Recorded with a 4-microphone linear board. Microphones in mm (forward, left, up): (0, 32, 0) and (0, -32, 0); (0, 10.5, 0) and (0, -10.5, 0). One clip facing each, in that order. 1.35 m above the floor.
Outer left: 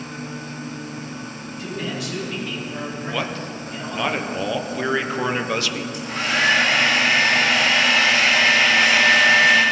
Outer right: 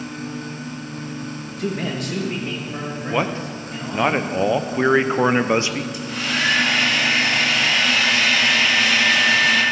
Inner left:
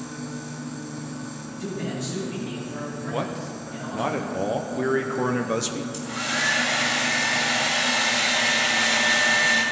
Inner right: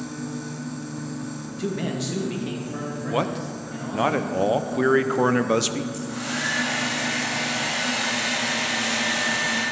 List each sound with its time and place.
1.6 s a man speaking: 60° right (ahead or behind), 1.8 m; by 4.1 s 10° right (ahead or behind), 4 m
3.1 s a man speaking: 25° right (ahead or behind), 0.5 m
5.9 s a hair dryer: 40° left (ahead or behind), 2 m